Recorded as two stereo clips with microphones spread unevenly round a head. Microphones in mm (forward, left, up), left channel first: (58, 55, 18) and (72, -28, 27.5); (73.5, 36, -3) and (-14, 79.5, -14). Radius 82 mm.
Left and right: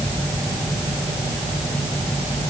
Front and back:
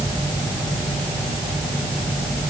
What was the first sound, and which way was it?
Only background noise.